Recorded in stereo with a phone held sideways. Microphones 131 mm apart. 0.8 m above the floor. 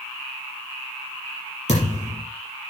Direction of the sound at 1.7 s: 65° left (ahead or behind).